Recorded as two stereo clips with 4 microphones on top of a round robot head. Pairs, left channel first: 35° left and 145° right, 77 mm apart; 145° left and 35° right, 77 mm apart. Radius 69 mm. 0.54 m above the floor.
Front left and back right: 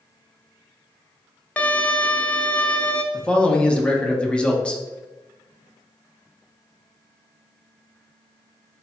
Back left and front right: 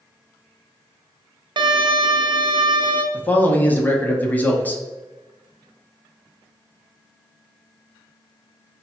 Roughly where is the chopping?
I don't hear chopping.